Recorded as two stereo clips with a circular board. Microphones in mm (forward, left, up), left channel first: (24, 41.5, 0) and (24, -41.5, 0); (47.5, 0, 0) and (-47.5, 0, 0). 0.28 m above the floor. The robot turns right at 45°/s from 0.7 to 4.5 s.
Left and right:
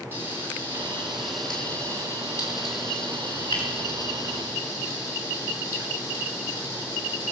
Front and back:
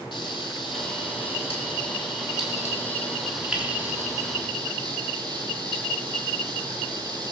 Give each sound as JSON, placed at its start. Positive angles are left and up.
{"t": 0.1, "sound": "frying", "azimuth_deg": -30, "distance_m": 4.0}